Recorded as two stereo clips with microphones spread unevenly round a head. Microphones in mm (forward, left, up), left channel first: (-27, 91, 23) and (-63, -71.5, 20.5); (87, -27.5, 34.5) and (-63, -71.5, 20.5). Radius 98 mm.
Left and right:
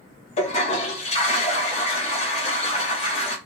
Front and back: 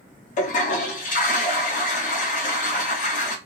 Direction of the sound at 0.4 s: 35° left.